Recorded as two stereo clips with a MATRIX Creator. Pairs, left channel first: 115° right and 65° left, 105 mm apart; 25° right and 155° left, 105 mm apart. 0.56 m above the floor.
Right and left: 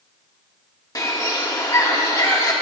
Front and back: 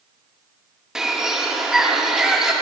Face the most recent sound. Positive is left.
turn(degrees=-125)